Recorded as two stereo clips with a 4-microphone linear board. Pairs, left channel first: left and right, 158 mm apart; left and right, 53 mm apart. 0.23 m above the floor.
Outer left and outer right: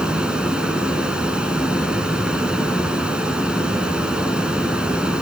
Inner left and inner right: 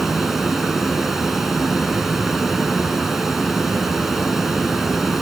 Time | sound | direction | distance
0.0 | running water | 5° right (ahead or behind) | 2.5 m